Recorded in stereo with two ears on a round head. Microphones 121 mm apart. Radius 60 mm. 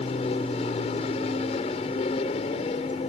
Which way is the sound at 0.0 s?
45° left (ahead or behind).